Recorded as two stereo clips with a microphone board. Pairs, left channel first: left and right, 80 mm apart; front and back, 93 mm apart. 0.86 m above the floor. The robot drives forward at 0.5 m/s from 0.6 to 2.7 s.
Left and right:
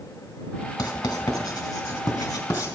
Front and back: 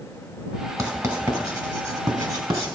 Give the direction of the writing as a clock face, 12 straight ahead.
8 o'clock.